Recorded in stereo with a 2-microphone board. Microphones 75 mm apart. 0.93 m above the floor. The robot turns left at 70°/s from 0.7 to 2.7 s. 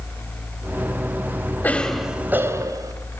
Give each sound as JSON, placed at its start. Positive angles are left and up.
{"t": 1.6, "sound": "a cough", "azimuth_deg": 25, "distance_m": 4.0}